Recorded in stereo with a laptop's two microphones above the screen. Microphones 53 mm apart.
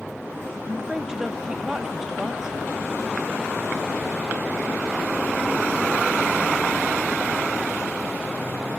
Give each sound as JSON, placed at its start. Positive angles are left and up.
{"t": 0.7, "sound": "a woman speaking", "side_deg": -10, "distance_m": 0.9}